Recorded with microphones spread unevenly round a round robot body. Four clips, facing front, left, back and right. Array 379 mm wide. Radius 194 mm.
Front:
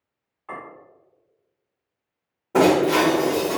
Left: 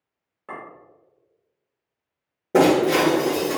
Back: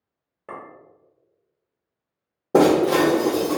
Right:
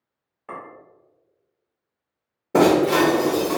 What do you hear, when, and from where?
0.5 s a clink: 165° left, 1.1 m
2.5 s breaking glass: 170° left, 0.9 m